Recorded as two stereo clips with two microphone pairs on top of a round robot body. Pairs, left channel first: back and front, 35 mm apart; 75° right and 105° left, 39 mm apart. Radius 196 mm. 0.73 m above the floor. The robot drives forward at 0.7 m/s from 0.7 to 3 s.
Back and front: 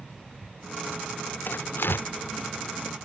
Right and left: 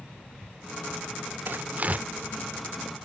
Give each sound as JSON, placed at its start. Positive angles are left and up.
{"t": 1.5, "sound": "tearing paper", "azimuth_deg": 145}